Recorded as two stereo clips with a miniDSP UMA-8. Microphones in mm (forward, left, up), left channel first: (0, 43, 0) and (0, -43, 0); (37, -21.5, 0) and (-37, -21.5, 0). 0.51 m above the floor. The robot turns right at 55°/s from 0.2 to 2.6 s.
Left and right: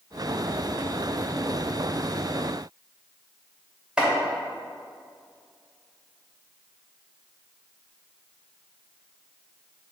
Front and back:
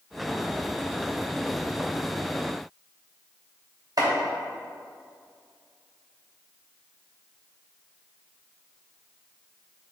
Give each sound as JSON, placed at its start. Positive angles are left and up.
{"t": 4.0, "sound": "chopping", "azimuth_deg": -170, "distance_m": 2.0}